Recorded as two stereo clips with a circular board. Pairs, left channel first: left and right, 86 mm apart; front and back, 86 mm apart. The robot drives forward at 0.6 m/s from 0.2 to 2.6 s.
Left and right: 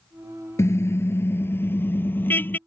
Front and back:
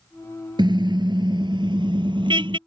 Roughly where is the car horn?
Behind left.